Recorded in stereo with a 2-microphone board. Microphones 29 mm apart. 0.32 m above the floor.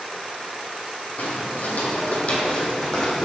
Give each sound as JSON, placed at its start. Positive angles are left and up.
{"t": 1.2, "sound": "footsteps", "side_deg": 75, "distance_m": 1.0}